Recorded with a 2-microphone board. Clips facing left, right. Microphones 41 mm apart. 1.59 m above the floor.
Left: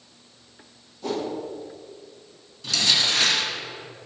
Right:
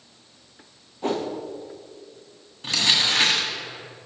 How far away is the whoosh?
About 0.9 m.